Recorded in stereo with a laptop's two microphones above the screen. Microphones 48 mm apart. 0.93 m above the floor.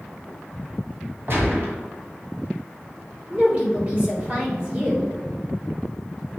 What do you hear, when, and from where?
1.3 s a gunshot: 50° right (ahead or behind), 2 m
3.3 s a woman speaking: 30° right (ahead or behind), 3 m